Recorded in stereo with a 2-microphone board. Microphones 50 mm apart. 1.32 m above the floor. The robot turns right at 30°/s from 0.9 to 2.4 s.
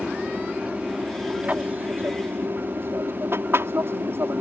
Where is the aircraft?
165° right; by 4.4 s 120° right.